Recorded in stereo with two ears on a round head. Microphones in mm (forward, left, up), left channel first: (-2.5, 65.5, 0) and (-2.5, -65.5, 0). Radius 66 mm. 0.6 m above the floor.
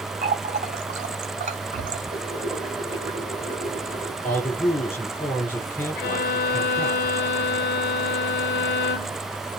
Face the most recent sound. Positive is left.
turn(degrees=70)  # may be behind; listen again after turning